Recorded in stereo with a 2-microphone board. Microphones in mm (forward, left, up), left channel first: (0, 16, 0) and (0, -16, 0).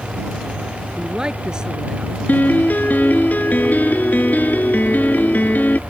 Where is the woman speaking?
25° right (ahead or behind).